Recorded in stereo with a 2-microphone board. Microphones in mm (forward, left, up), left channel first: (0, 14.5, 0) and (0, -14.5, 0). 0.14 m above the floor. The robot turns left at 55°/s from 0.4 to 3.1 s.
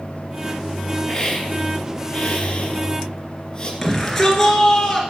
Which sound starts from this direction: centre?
A shout, at 3.8 s.